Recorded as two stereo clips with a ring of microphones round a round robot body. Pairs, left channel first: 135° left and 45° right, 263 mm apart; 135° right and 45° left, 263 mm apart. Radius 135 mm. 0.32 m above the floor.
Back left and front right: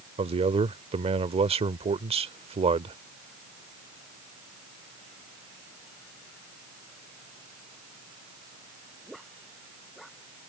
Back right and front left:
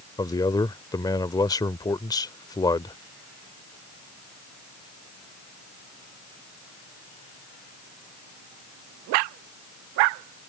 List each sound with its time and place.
0.2 s a man speaking: 80° right